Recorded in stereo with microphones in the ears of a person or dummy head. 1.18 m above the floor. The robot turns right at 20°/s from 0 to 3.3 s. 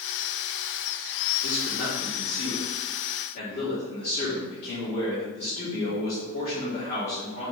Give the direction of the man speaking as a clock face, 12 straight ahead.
8 o'clock.